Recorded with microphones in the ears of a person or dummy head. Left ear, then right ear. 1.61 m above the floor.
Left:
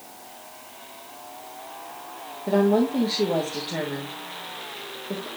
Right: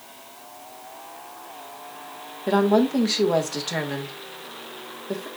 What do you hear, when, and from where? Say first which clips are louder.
2.5 s a woman speaking: right 1 dB; 70° right (ahead or behind), 1.8 m